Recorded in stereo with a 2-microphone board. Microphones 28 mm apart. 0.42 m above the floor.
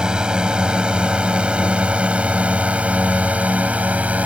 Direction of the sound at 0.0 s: 30° right (ahead or behind).